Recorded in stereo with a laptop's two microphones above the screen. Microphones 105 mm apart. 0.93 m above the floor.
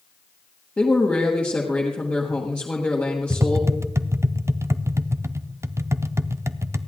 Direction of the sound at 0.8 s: 15° left (ahead or behind).